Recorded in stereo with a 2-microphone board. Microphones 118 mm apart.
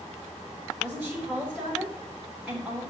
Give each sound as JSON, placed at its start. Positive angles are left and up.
{"t": 0.8, "sound": "a woman speaking", "side_deg": -10, "distance_m": 5.5}